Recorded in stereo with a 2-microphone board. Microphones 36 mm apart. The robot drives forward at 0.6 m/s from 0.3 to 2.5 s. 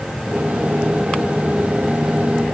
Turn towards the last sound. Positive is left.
No sound to turn to.